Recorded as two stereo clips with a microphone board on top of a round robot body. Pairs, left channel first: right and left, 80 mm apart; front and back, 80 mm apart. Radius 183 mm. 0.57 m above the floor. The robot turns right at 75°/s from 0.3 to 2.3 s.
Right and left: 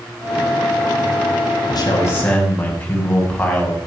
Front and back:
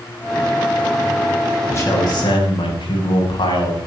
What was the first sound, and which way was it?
A man speaking, 60° right.